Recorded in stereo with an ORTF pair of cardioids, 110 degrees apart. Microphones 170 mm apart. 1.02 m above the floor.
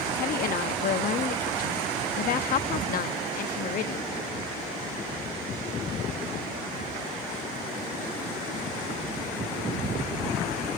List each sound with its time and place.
0.1 s a woman speaking: 55° left, 1.2 m